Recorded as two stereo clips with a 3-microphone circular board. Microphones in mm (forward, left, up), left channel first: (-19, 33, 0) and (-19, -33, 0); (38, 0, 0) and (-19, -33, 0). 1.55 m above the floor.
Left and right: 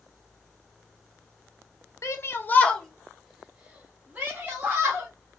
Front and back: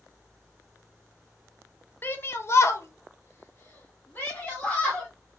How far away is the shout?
About 0.6 m.